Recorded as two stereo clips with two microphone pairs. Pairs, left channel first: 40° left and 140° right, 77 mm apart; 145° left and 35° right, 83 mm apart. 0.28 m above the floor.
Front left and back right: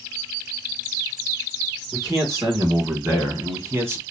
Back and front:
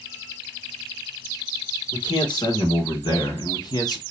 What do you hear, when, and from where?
1.9 s a man speaking: 170° left, 3 m; by 4.0 s 165° left, 1.7 m